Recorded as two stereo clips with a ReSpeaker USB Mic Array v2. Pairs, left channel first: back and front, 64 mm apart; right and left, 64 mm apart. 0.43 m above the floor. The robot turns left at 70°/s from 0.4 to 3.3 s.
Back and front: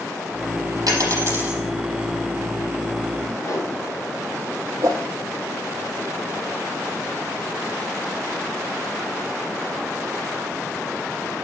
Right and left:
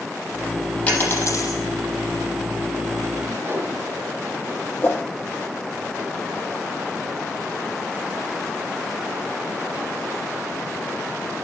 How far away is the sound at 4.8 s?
About 3.5 m.